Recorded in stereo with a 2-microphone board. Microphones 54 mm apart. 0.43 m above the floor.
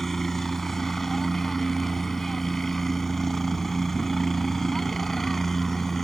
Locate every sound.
0.0 s a helicopter: 5° left (ahead or behind)